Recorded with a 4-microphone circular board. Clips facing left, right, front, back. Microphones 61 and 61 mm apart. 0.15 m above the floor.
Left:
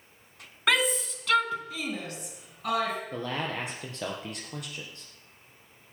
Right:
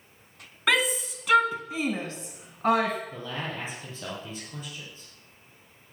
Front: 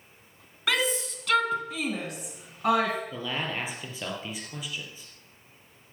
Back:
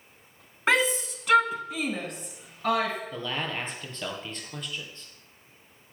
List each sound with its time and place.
0.7 s a shout: straight behind, 1.5 m; by 3.0 s 65° right, 1.8 m
3.1 s a man speaking: 80° left, 3.5 m